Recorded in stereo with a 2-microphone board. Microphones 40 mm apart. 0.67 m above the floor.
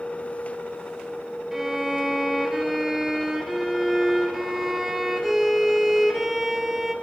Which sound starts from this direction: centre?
A violin, at 1.5 s.